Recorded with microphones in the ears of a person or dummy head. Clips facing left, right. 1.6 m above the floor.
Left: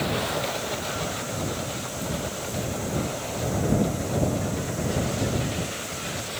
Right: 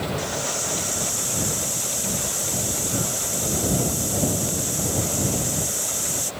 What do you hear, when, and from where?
0.2 s a hiss: 75° right (ahead or behind)